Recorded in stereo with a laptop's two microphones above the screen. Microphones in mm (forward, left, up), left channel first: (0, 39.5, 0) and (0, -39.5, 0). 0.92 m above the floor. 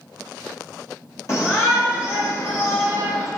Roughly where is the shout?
Left.